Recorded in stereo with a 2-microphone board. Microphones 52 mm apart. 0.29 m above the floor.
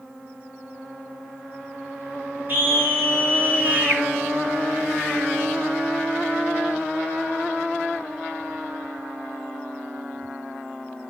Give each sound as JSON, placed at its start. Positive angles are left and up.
{"t": 2.5, "sound": "a scream", "side_deg": -40, "distance_m": 6.0}